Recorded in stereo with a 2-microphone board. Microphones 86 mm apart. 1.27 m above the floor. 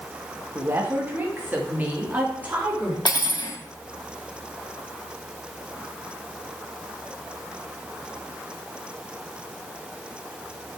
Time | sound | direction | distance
0.6 | a woman speaking | 30° right (ahead or behind) | 1.5 m
3.0 | cutlery clinking | 60° left (ahead or behind) | 1.3 m